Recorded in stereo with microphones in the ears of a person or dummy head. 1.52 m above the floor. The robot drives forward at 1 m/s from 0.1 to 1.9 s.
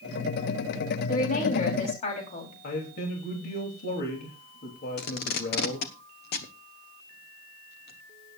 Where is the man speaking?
60° left (ahead or behind), 3 m.